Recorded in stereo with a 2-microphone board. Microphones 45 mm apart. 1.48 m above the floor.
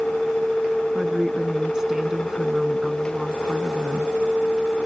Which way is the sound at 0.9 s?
15° right (ahead or behind).